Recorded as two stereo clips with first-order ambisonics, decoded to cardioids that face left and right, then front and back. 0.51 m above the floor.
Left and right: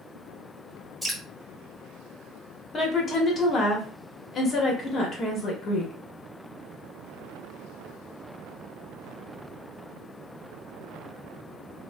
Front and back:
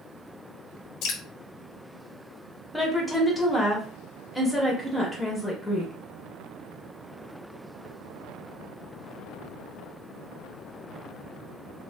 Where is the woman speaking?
75° left, 0.7 m.